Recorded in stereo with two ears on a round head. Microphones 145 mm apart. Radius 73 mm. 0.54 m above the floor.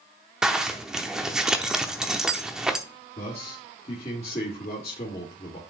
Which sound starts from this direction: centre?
A zipper, at 0.4 s.